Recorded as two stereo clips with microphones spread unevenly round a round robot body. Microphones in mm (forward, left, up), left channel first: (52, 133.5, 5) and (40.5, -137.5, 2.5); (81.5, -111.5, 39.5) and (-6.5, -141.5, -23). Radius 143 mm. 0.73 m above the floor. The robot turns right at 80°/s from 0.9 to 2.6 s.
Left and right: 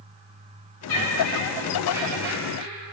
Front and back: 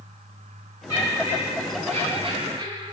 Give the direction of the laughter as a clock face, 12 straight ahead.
9 o'clock.